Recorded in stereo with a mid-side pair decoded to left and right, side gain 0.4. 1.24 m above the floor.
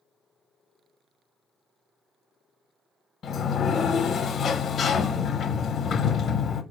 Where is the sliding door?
65° left, 0.6 m.